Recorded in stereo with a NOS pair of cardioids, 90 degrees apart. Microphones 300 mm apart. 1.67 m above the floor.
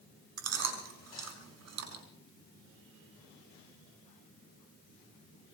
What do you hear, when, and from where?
0.4 s chewing: 60° right, 5 m